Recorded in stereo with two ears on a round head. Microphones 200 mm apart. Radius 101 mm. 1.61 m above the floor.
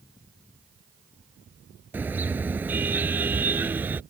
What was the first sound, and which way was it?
A car horn, 10° right (ahead or behind).